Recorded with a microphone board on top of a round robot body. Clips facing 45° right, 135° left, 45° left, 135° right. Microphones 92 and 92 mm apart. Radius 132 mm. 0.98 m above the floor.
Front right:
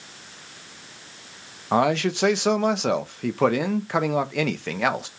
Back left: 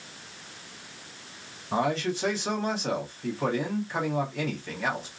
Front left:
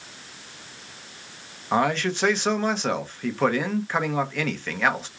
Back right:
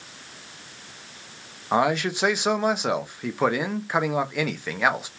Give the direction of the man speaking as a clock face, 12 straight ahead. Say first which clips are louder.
Front right 6 dB, back right 1 dB; 2 o'clock.